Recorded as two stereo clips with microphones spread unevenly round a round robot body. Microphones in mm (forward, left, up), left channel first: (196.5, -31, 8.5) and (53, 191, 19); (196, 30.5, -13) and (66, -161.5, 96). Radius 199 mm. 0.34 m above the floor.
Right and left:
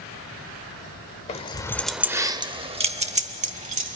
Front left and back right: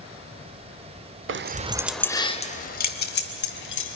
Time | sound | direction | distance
1.3 | keys jangling | 85° right | 0.6 m